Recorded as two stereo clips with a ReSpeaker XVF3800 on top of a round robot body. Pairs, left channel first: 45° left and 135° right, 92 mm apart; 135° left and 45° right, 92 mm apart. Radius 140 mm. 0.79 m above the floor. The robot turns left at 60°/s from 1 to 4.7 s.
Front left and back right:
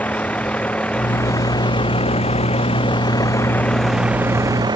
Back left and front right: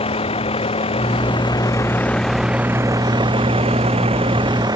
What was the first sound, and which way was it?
A vehicle, 120° left.